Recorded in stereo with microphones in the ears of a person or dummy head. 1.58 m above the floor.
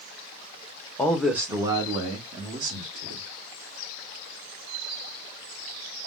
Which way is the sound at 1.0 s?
10° left (ahead or behind).